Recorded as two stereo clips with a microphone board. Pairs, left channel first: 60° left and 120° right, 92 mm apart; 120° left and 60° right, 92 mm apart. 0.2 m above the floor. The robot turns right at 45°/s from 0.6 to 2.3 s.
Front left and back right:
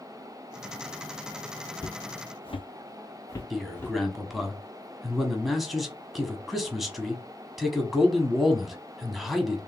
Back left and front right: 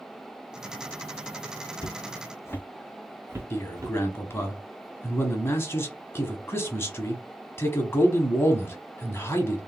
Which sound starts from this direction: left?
Footsteps, at 1.8 s.